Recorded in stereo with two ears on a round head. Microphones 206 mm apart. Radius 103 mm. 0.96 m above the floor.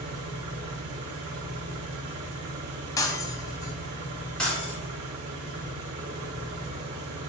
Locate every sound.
0.0 s an engine running: 75° right (ahead or behind), 1.0 m
3.0 s breaking glass: 15° left (ahead or behind), 0.6 m
4.4 s breaking glass: 5° left (ahead or behind), 1.1 m